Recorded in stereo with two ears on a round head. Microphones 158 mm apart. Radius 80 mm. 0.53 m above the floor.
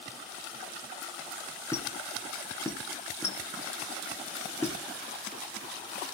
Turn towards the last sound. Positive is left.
turn(degrees=15)  # may be behind; listen again after turning